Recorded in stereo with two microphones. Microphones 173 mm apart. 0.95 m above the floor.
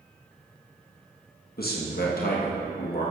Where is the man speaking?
65° left (ahead or behind), 1.0 m.